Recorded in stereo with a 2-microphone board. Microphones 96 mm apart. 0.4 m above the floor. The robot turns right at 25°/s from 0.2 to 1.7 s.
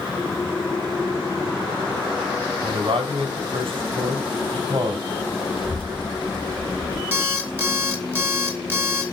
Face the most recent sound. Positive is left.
turn(degrees=-20)  # may be behind; listen again after turning